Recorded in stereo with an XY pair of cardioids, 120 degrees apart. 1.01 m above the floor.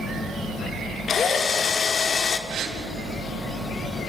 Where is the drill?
40° left, 1.9 m.